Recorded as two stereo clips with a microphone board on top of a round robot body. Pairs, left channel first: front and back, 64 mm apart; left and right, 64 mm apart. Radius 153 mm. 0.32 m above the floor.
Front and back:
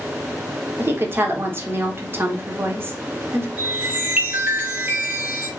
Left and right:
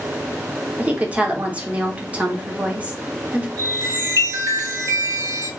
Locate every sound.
0.8 s a woman speaking: 150° right, 1.1 m
3.6 s a chime: 120° right, 1.9 m